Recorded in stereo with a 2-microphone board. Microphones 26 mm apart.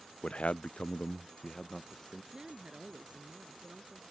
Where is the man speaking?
45° left (ahead or behind); by 2.2 s 15° left (ahead or behind).